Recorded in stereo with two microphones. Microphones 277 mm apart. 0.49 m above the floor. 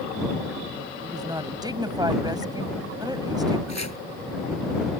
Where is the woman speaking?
15° right (ahead or behind).